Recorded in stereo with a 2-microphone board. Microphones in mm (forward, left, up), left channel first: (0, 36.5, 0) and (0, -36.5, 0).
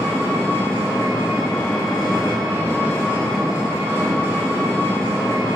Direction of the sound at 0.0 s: 30° left (ahead or behind).